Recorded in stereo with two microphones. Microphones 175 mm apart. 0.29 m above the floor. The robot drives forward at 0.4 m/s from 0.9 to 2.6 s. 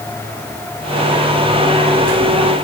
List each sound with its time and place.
Only background noise.